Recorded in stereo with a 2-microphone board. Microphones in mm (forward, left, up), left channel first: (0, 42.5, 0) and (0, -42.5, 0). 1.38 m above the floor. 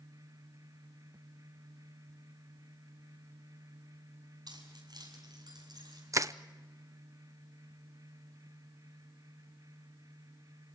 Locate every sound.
4.5 s keys jangling: 60° right (ahead or behind), 6.5 m; by 6.0 s 55° right (ahead or behind), 8.5 m
6.1 s crushing: 40° right (ahead or behind), 0.6 m